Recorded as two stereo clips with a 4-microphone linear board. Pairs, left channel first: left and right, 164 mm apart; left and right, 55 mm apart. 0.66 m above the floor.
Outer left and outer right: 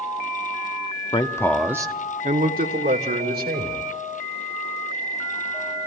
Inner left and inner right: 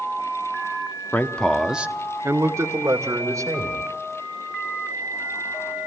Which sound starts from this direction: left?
A man speaking, at 1.1 s.